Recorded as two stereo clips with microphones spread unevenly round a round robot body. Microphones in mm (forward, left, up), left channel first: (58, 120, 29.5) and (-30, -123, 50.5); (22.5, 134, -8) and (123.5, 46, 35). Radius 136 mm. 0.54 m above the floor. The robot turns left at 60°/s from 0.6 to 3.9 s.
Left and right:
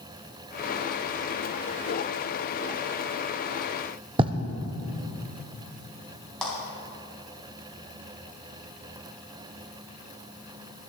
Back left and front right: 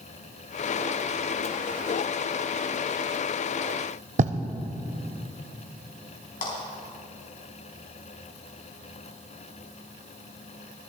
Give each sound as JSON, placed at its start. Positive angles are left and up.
{"t": 4.2, "sound": "writing", "azimuth_deg": -40, "distance_m": 0.5}
{"t": 6.4, "sound": "a clap", "azimuth_deg": 160, "distance_m": 3.5}